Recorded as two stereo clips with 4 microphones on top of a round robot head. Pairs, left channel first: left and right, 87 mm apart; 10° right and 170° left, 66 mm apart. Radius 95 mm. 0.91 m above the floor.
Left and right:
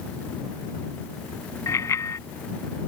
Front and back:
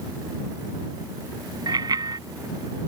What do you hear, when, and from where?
1.7 s a bicycle bell: 150° left